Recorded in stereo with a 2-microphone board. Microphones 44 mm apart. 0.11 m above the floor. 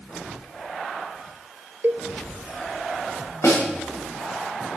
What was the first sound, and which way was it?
A cowbell, 50° right (ahead or behind).